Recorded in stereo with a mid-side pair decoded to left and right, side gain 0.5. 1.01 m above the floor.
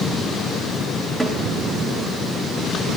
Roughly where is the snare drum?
Ahead.